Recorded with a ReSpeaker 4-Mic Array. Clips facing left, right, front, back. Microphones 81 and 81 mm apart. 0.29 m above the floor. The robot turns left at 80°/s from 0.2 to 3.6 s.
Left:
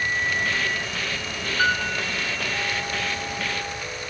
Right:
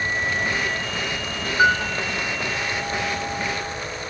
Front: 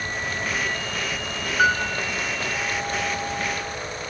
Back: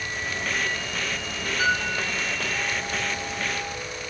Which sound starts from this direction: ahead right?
A piano, at 1.6 s.